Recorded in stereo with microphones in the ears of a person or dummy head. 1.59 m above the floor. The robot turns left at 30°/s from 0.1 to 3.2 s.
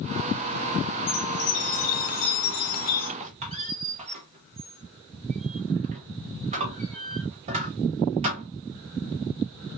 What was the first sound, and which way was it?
A chime, 120° left.